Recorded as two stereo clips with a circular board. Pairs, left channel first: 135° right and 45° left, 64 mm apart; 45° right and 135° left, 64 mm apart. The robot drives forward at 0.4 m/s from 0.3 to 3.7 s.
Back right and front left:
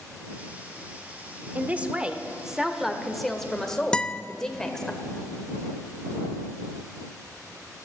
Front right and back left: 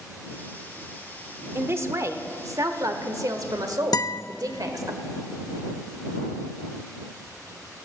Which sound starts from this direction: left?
A man speaking, at 1.6 s.